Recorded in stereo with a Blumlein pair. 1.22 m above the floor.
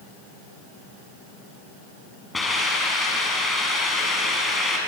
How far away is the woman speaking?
No woman speaking in this recording.